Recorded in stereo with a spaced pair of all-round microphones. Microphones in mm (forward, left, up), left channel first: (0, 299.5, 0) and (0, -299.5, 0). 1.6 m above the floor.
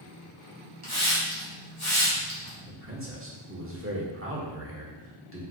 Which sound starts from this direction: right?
A man speaking, at 2.7 s.